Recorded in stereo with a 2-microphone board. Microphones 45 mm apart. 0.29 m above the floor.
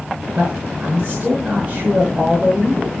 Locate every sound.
0.3 s a man speaking: 20° right (ahead or behind), 5.5 m